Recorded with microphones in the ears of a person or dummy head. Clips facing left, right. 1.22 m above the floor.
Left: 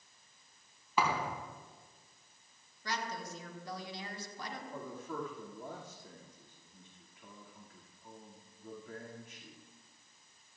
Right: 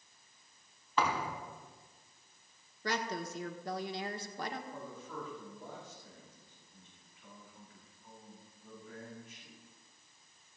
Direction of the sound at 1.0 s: 5° left (ahead or behind).